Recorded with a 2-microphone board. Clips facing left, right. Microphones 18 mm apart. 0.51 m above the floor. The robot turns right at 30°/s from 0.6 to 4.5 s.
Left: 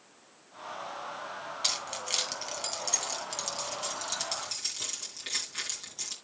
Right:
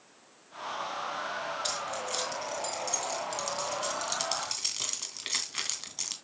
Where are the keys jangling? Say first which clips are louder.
Left 1 dB; 60° left (ahead or behind), 2.5 m; by 6.2 s 25° right (ahead or behind), 2.5 m.